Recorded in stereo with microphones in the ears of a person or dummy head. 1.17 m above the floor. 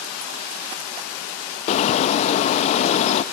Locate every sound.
1.7 s a bird: 35° left (ahead or behind), 0.6 m